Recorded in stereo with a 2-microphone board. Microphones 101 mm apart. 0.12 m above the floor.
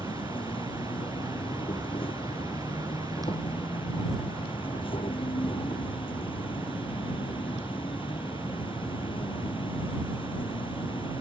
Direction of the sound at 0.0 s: 65° left (ahead or behind).